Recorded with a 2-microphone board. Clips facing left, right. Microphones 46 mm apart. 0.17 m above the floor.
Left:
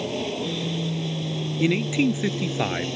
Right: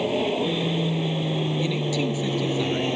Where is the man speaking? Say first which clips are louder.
Left 3 dB; 40° left (ahead or behind).